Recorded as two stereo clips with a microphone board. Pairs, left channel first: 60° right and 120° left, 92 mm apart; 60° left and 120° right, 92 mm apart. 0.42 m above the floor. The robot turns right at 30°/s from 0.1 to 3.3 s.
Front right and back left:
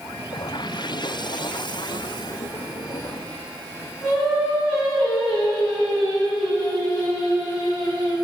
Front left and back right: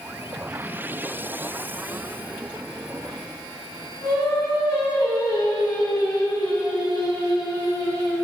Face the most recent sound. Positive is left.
turn(degrees=25)